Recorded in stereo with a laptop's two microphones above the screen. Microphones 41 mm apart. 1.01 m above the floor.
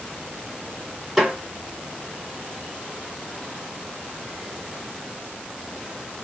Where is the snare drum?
10° right (ahead or behind), 2.5 m.